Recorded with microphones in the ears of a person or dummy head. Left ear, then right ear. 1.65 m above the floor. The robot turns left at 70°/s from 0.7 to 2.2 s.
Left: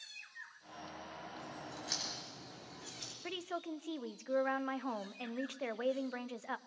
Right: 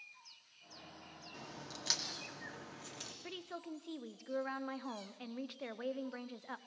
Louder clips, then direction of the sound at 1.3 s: Left 2 dB; 60° right.